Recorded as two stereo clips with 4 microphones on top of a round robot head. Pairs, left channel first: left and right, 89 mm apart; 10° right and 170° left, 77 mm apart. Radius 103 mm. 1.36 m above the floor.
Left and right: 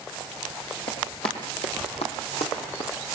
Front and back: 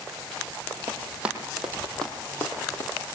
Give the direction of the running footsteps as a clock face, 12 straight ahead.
9 o'clock.